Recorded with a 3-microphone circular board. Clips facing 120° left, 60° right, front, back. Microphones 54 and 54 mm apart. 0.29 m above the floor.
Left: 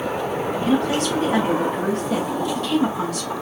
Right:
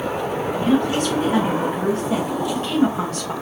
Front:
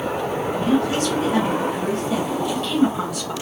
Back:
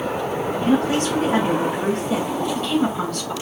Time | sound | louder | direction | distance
0.6 | a woman speaking | right 2 dB, back 1 dB | 145° right | 2 m